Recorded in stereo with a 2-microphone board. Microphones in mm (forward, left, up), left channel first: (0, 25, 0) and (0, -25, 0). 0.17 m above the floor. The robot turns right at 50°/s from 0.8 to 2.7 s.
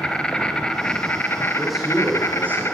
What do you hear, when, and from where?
0.0 s an insect: 20° left, 2.0 m; by 2.8 s 115° left, 2.0 m
1.6 s a man speaking: 175° left, 9.5 m; by 2.6 s 130° right, 9.5 m